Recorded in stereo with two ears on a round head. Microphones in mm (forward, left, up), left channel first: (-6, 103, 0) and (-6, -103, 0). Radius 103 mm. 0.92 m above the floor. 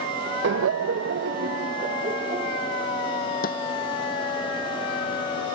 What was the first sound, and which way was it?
Laughter, 50° right (ahead or behind).